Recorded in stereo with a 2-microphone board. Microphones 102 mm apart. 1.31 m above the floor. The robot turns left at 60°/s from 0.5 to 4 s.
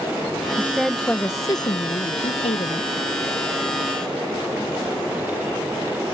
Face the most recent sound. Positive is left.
turn(degrees=-10)